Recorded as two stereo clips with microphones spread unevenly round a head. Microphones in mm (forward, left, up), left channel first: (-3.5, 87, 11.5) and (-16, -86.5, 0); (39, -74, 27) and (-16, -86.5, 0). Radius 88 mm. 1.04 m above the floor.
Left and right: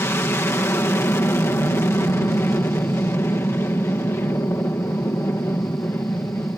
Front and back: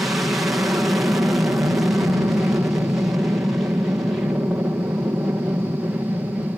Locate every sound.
0.0 s an aircraft: 155° left